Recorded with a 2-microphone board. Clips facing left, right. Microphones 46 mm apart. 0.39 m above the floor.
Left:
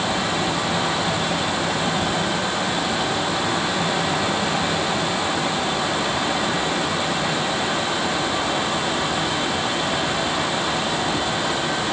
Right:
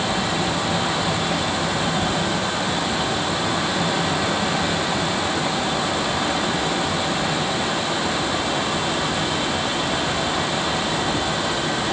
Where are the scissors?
I don't hear scissors.